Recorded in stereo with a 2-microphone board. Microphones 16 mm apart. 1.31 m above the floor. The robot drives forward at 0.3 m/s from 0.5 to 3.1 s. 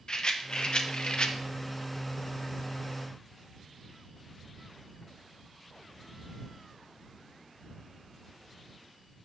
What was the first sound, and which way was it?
A rattle, 55° left (ahead or behind).